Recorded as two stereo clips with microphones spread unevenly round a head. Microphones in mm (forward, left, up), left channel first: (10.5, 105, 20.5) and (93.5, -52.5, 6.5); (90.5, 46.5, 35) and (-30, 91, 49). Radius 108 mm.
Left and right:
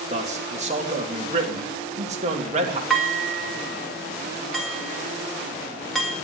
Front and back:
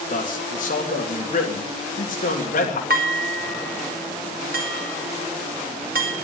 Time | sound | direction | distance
0.1 | a man speaking | 10° right | 2.5 m
2.9 | dishes clattering | 155° right | 1.6 m